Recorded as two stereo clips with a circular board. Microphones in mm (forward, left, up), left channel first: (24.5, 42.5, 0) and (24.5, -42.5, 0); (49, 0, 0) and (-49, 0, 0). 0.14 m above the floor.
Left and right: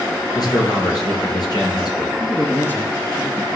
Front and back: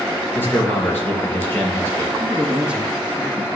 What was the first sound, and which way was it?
A man speaking, 65° left.